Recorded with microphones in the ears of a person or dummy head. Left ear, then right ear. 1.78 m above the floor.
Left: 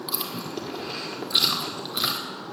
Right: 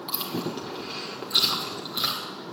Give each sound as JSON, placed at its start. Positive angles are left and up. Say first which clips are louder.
{"t": 0.1, "sound": "chewing", "louder": "right 2 dB", "side_deg": 5, "distance_m": 1.9}